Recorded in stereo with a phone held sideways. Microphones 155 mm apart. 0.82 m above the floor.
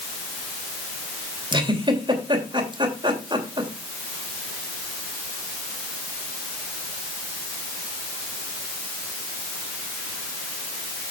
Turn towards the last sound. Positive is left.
turn(degrees=-30)  # may be behind; listen again after turning